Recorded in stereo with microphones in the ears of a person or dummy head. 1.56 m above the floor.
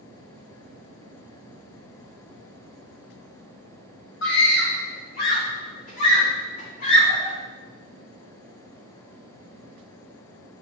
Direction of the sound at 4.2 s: 70° left (ahead or behind).